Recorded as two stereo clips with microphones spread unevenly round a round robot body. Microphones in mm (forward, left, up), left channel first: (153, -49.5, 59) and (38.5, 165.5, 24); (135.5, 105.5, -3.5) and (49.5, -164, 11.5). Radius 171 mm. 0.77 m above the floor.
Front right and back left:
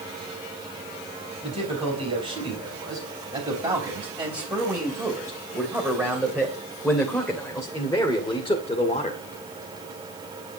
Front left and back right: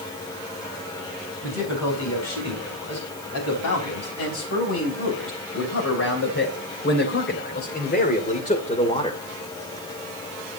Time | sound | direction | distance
1.4 | a man speaking | 55° left | 5.5 m